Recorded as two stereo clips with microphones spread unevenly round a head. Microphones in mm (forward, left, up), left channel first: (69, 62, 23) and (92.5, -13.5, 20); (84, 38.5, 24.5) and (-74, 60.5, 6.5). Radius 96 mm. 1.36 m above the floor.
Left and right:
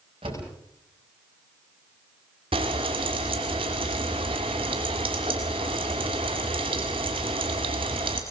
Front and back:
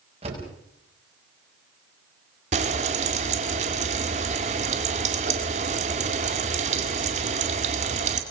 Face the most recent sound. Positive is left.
turn(degrees=-130)